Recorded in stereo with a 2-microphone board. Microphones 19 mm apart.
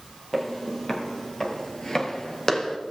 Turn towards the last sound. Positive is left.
turn(degrees=35)  # may be behind; listen again after turning